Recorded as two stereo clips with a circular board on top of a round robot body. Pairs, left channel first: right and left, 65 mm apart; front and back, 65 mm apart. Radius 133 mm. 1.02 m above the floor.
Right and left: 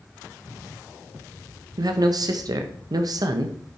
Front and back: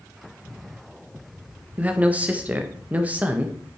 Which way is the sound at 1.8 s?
110° left.